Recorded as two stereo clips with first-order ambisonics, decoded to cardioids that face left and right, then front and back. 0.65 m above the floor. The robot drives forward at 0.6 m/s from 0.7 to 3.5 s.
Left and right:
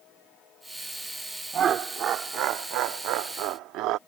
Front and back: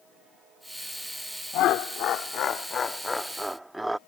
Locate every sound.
1.5 s laughter: 35° right; by 4.0 s 100° right